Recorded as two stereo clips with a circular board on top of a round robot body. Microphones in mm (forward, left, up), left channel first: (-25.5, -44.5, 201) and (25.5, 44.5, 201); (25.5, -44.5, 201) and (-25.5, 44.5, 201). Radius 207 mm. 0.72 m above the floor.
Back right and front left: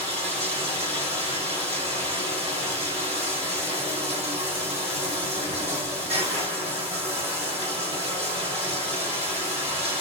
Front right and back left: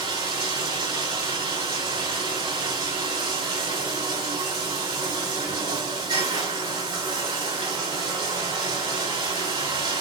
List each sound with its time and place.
0.0 s running water: 75° left, 3 m